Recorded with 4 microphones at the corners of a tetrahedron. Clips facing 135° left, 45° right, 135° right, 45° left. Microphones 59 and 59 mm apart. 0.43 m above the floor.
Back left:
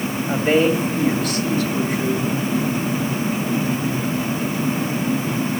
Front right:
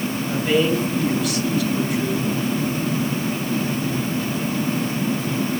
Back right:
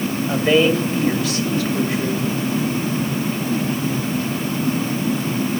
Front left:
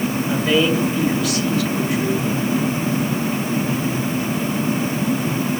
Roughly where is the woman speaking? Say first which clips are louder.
Back left 3 dB, back right 3 dB; behind.